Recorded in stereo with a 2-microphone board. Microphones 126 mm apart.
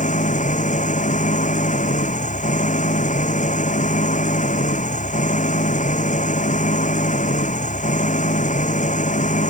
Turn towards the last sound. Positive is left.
turn(degrees=80)